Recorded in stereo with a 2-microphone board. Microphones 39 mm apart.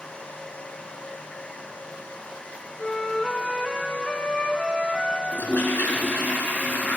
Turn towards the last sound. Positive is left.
turn(degrees=65)  # may be behind; listen again after turning